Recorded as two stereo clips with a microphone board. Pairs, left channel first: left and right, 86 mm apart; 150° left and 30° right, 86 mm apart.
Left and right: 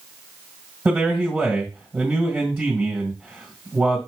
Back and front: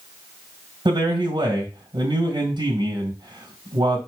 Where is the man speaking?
5° right, 2 m.